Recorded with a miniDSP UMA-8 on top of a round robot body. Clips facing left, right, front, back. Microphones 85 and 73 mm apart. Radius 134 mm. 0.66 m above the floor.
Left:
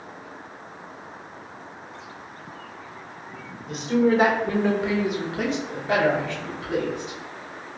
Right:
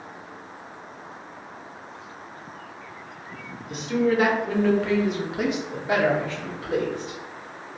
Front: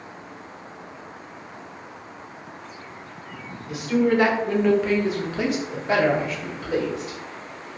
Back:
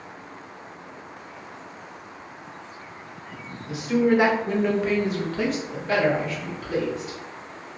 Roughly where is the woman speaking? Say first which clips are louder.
Left 2 dB, even; behind left.